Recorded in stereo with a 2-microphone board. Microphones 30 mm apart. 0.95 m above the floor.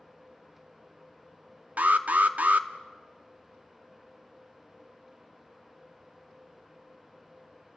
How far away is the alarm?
About 0.9 m.